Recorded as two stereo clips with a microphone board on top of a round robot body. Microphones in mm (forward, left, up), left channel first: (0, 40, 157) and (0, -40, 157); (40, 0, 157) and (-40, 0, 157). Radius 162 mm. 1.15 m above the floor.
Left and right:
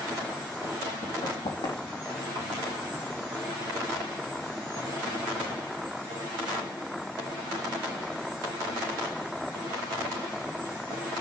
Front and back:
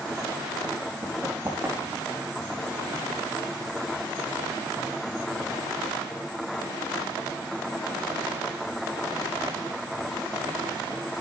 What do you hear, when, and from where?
1.0 s running footsteps: 120° left, 3.5 m; by 2.3 s 115° left, 4 m